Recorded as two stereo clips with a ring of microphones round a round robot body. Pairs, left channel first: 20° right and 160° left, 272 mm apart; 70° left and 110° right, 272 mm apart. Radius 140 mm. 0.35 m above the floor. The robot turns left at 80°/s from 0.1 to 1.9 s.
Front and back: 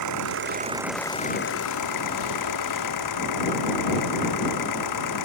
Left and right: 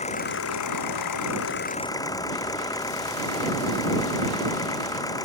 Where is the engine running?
135° left; by 5.3 s 10° right.